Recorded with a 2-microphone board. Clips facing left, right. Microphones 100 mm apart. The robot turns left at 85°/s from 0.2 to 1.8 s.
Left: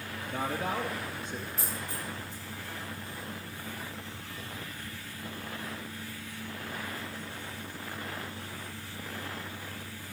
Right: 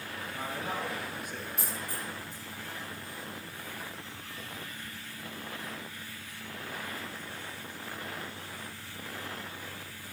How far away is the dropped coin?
About 7 m.